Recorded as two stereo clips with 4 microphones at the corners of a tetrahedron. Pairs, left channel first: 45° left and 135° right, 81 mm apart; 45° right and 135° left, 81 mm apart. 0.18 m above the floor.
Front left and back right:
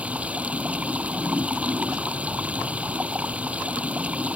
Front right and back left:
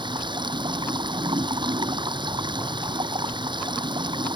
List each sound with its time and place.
0.0 s running water: 150° left